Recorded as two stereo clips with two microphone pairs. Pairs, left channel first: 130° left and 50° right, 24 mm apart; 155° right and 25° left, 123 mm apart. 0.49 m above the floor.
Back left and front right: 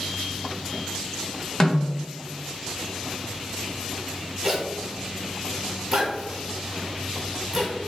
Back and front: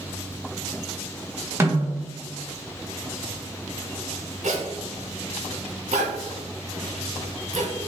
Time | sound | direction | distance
1.6 | a snare drum | 75° left | 0.8 m
4.4 | a zipper | 20° left | 0.9 m